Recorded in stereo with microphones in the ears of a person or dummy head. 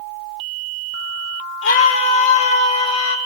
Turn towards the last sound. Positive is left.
turn(degrees=80)